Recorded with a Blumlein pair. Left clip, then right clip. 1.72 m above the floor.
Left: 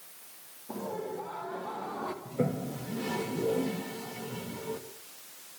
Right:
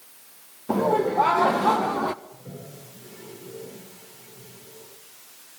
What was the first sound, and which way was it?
Laughter, 35° right.